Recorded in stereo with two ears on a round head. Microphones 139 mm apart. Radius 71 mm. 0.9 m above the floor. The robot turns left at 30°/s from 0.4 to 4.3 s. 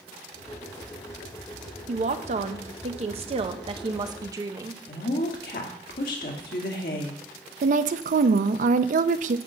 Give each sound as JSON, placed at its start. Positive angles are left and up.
{"t": 1.9, "sound": "a woman speaking", "azimuth_deg": -75, "distance_m": 0.8}
{"t": 4.9, "sound": "a woman speaking", "side_deg": 60, "distance_m": 1.9}
{"t": 7.6, "sound": "a woman speaking", "side_deg": -55, "distance_m": 0.5}